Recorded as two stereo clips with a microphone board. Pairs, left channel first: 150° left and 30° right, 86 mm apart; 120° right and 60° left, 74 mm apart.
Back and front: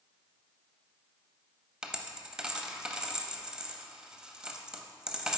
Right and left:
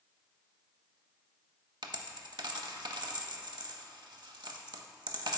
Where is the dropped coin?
50° left, 0.6 m.